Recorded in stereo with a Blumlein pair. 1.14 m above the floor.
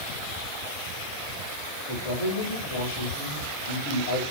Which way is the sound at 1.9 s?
60° left.